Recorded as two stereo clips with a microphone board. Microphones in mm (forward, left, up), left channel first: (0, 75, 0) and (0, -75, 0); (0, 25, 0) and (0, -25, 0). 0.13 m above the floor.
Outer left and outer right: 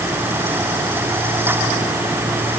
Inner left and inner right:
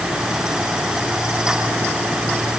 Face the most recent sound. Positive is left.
No sound to turn to.